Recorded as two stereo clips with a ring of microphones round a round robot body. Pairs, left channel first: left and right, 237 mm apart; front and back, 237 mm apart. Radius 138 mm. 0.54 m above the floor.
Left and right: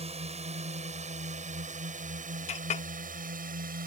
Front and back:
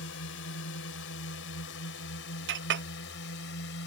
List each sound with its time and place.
0.0 s a drone: 30° right; by 3.9 s 40° right
2.5 s a clink: 150° left